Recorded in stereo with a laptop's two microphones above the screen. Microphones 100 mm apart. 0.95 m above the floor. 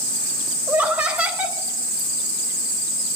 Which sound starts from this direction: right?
Laughter, at 0.7 s.